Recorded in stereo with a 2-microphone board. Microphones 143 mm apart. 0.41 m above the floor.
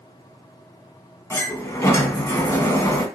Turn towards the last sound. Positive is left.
turn(degrees=20)  # may be behind; listen again after turning